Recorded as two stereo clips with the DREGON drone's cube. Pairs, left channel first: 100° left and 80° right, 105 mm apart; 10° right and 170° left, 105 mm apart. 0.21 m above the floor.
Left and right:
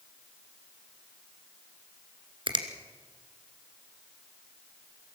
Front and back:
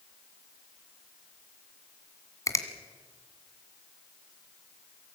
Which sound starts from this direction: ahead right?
A finger snap, at 2.5 s.